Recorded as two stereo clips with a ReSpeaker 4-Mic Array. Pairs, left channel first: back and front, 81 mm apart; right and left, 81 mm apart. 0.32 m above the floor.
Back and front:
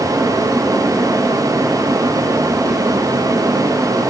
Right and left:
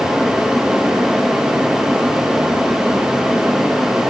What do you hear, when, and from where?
Only background noise.